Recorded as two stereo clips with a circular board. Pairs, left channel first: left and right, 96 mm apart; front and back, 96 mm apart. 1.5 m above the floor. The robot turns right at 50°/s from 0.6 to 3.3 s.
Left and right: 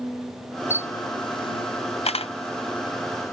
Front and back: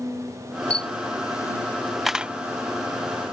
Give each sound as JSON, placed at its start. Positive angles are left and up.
{"t": 0.7, "sound": "a camera shutter", "azimuth_deg": 25}